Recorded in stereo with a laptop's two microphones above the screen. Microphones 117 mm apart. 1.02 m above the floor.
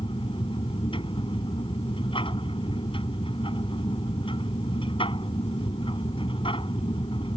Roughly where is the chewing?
I don't hear chewing.